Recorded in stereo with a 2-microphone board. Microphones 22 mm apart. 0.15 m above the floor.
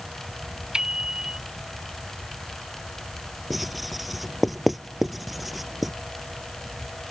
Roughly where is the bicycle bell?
Right.